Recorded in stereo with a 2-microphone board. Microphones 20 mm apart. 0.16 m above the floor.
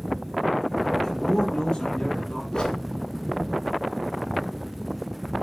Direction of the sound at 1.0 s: 25° left (ahead or behind).